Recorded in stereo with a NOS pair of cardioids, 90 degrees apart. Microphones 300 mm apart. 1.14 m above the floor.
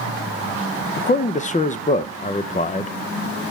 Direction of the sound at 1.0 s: 25° left.